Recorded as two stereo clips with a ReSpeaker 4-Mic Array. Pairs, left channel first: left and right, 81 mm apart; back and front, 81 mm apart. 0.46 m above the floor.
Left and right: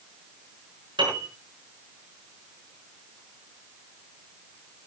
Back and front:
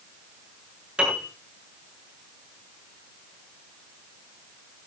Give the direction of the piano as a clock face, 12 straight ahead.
3 o'clock.